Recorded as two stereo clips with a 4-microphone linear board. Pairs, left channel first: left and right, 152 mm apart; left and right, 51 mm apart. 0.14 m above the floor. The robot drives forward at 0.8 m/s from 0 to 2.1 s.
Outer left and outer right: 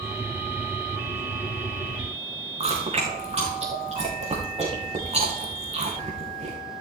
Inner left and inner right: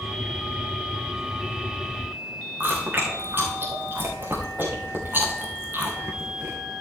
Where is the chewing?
40° right (ahead or behind), 3.5 m.